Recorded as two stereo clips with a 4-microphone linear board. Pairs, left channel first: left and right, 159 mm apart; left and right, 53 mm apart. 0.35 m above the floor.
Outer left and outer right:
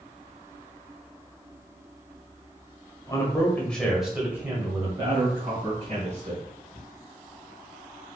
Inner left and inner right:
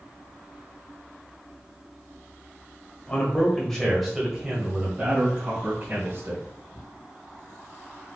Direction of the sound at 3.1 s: 25° left (ahead or behind).